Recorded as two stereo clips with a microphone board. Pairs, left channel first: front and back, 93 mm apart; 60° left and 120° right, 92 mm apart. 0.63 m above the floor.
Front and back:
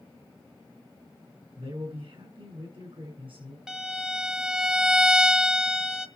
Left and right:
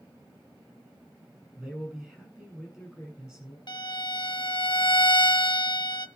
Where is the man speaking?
155° left, 7.5 m.